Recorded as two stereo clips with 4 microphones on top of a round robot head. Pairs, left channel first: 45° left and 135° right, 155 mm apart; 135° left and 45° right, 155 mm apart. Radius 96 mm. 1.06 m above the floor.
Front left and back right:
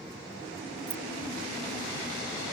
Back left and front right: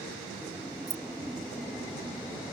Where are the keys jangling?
110° right.